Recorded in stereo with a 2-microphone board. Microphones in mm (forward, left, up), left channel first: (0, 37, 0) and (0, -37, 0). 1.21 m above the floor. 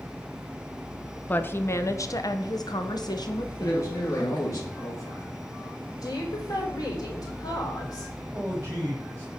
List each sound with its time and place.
1.3 s a woman speaking: 25° left (ahead or behind), 0.8 m; by 4.6 s 70° left (ahead or behind), 1.9 m
3.6 s a man speaking: 45° left (ahead or behind), 2 m
6.0 s a woman speaking: 55° left (ahead or behind), 4 m
8.3 s a man speaking: 30° right (ahead or behind), 5 m